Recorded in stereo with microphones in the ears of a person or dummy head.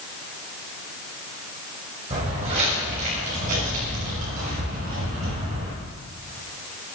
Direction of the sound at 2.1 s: 35° right (ahead or behind).